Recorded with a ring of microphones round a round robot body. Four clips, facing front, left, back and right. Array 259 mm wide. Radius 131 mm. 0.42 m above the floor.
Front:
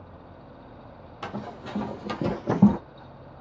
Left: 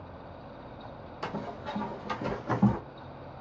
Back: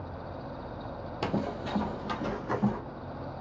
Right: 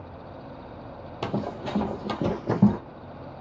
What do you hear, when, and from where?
1.2 s running footsteps: 125° right, 0.8 m; by 2.8 s 30° right, 1.2 m